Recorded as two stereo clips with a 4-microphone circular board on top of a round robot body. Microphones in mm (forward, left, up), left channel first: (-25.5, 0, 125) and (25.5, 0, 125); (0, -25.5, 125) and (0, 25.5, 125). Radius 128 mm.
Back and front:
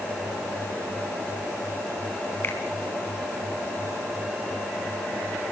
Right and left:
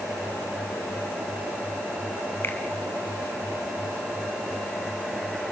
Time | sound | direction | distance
2.4 | a finger snap | 135° right | 3.5 m